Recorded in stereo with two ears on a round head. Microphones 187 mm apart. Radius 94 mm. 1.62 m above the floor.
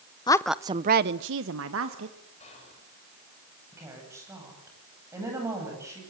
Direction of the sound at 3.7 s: 15° right (ahead or behind).